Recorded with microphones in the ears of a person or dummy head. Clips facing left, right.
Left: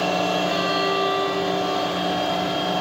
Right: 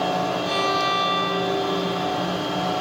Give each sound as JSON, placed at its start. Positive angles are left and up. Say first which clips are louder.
{"t": 0.5, "sound": "a violin", "louder": "left 2 dB", "side_deg": -65, "distance_m": 5.5}